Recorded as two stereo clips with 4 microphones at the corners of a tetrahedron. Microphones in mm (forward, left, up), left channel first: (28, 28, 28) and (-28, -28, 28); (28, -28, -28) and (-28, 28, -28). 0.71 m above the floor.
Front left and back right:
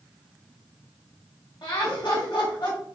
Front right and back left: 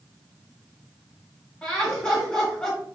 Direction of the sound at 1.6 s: 30° left.